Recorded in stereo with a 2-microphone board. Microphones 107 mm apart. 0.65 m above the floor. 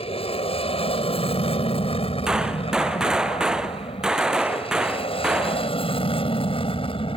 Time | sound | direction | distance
0.0 | an aircraft | 65° left (ahead or behind) | ?
2.3 | a gunshot | 5° right (ahead or behind) | ?